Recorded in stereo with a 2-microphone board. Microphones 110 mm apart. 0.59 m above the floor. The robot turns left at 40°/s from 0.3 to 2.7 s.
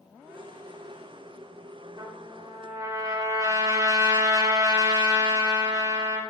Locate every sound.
2.0 s a trumpet: 45° right (ahead or behind), 1.8 m; by 6.2 s 30° right (ahead or behind), 1.8 m